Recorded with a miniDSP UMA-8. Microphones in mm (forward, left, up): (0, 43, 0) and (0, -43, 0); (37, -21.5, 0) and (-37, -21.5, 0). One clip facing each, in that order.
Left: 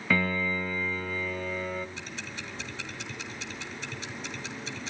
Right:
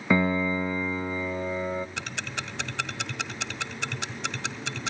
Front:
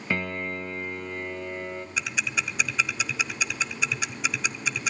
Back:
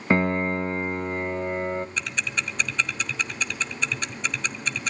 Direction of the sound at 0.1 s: 150° right.